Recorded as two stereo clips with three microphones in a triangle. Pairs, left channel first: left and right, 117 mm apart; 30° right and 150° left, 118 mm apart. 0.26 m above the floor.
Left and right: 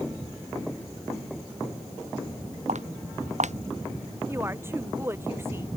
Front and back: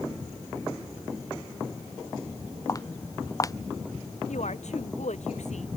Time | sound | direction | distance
2.7 | footsteps | 90° right | ?
4.3 | a woman speaking | 20° right | ?